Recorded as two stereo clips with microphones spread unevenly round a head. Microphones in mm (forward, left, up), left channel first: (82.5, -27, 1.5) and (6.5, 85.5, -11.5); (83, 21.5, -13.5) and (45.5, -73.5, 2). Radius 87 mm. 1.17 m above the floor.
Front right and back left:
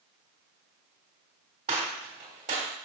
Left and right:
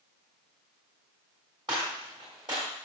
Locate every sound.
1.7 s a gunshot: 175° right, 2.5 m